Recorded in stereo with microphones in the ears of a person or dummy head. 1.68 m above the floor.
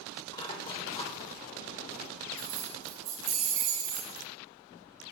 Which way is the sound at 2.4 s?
45° right (ahead or behind).